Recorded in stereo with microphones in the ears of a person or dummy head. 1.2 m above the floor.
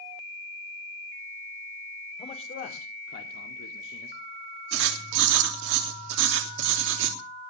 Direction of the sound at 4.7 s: 80° right.